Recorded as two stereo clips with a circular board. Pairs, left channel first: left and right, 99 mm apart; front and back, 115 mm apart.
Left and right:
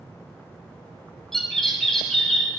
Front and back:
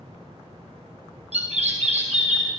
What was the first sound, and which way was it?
A bird, 175° left.